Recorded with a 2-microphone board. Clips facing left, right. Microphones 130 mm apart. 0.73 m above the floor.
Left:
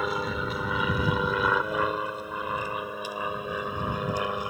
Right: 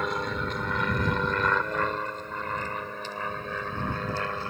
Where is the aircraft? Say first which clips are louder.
Left 1 dB; 5° left (ahead or behind); by 4.5 s 15° left (ahead or behind).